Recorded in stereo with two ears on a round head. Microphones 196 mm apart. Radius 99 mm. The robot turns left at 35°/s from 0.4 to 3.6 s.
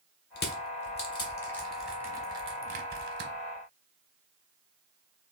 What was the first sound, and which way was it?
Crushing, 50° left (ahead or behind).